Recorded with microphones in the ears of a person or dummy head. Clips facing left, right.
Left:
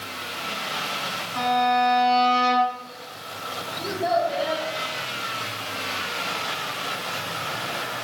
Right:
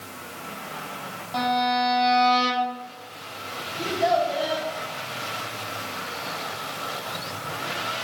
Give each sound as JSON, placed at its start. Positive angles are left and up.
{"t": 1.3, "sound": "a violin", "side_deg": -85, "distance_m": 8.0}
{"t": 3.8, "sound": "a child speaking", "side_deg": -60, "distance_m": 6.0}